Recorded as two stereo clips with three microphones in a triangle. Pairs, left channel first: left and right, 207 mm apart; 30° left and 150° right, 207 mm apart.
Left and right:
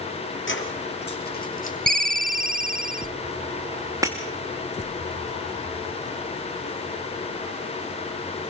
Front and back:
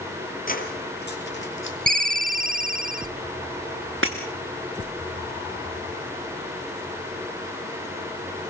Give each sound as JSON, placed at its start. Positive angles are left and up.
{"t": 0.5, "sound": "keys jangling", "azimuth_deg": 75, "distance_m": 3.0}
{"t": 1.9, "sound": "a ringtone", "azimuth_deg": -120, "distance_m": 0.6}
{"t": 4.0, "sound": "breaking glass", "azimuth_deg": -165, "distance_m": 2.5}